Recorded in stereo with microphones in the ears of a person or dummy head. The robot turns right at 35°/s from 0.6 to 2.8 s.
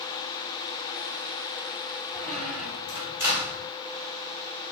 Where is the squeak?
10° left (ahead or behind), 2.5 m; by 3.7 s 15° right (ahead or behind), 2.5 m.